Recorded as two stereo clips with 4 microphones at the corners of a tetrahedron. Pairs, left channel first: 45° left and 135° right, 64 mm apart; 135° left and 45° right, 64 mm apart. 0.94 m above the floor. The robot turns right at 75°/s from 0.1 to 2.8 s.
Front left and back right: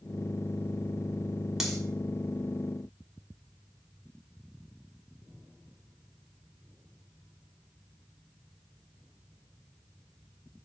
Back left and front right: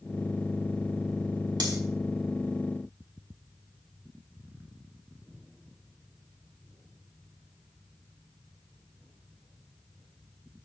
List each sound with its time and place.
1.6 s cutlery clinking: 50° right, 1.2 m; by 1.8 s 40° right, 1.2 m